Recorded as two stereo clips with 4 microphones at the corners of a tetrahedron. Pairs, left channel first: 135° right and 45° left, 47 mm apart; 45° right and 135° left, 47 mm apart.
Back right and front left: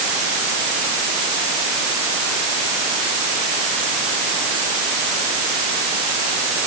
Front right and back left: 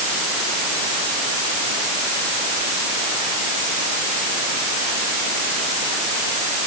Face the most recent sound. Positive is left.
No sound to turn to.